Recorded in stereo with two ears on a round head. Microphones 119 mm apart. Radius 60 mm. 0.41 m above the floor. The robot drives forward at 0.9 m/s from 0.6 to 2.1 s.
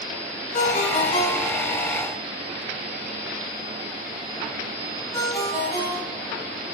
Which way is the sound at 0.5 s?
50° left (ahead or behind).